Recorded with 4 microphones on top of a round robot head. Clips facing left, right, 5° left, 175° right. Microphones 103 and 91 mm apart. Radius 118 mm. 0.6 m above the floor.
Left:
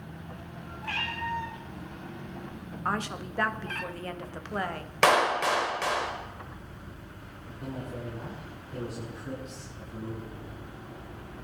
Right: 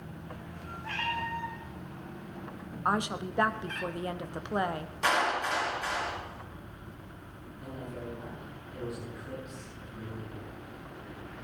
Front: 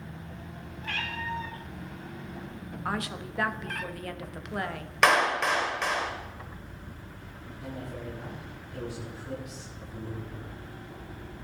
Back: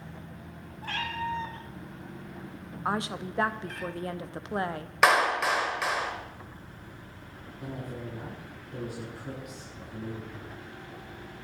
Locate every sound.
0.8 s a cat meowing: 130° left, 3 m; by 3.9 s 40° left, 1.1 m
2.9 s a woman speaking: 145° right, 1.3 m
5.0 s a clap: 100° left, 2.5 m
7.6 s a man speaking: 145° left, 9.5 m